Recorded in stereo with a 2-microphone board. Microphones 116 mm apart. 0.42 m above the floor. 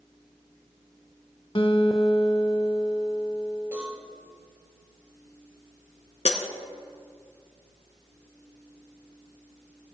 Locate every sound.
1.6 s a guitar: 50° left (ahead or behind), 0.9 m
3.7 s a cowbell: 15° right (ahead or behind), 4.5 m
6.2 s breaking glass: 75° left (ahead or behind), 1.1 m